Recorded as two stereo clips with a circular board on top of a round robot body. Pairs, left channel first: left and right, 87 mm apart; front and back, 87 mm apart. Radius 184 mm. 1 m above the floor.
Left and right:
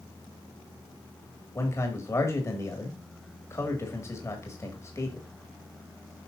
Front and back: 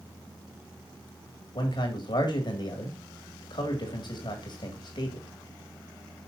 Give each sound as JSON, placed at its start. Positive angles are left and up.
{"t": 1.6, "sound": "a man speaking", "azimuth_deg": 30, "distance_m": 2.0}